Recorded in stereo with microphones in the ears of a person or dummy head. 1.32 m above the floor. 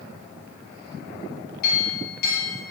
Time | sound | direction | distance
1.6 | a clink | 55° left (ahead or behind) | 2 m